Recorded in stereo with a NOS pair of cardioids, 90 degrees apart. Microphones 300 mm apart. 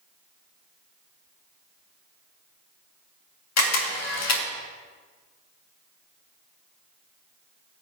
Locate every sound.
3.6 s a camera shutter: 60° left, 2.5 m